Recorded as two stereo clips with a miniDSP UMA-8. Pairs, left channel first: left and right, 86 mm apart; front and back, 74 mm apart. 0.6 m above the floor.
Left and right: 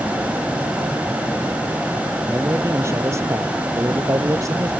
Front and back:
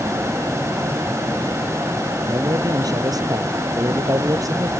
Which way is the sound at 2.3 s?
150° right.